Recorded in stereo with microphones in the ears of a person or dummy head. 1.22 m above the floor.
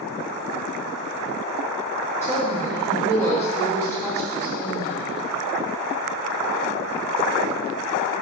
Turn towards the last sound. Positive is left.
turn(degrees=15)  # may be behind; listen again after turning